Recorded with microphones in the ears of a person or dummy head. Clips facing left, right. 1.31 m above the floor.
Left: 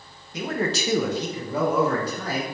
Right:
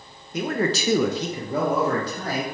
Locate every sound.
0.3 s a man speaking: 45° right (ahead or behind), 0.8 m; by 2.4 s 20° right (ahead or behind), 1.7 m